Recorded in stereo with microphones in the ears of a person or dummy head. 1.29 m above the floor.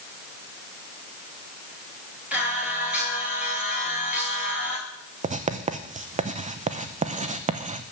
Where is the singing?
5° right (ahead or behind), 4 m.